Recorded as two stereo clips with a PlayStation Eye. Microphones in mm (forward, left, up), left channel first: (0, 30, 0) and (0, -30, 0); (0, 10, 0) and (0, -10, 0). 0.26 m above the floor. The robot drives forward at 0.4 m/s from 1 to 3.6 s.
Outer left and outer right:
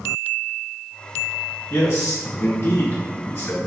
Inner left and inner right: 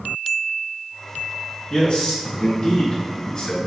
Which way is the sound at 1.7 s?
50° left (ahead or behind).